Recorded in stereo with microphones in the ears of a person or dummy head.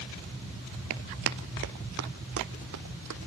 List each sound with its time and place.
0.9 s running footsteps: 40° right (ahead or behind), 1.6 m; by 3.3 s 60° right (ahead or behind), 3.5 m